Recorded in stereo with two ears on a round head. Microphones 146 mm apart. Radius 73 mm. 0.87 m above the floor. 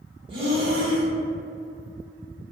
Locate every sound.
0.3 s breathing: 30° right (ahead or behind), 1.3 m